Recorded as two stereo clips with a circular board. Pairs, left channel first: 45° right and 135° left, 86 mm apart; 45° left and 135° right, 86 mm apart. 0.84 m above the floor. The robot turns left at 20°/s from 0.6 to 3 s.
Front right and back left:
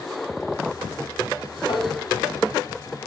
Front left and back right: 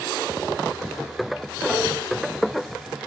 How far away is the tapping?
About 4 m.